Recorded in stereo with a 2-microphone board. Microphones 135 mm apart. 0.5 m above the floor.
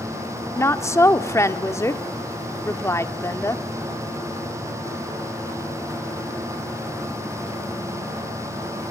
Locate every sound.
0.6 s a woman speaking: 20° left (ahead or behind), 1.0 m